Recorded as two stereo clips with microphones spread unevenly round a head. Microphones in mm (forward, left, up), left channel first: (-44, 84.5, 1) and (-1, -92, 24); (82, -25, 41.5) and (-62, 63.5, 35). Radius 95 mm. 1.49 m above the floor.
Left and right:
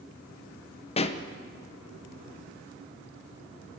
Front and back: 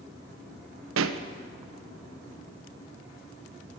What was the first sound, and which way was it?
A pop, 165° left.